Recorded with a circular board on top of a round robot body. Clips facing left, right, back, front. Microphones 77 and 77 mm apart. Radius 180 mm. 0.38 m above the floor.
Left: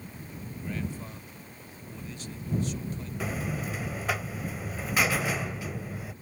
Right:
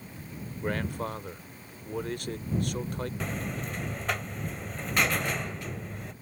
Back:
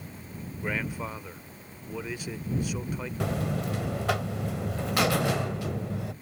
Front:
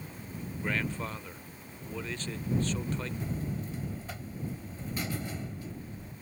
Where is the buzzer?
175° left.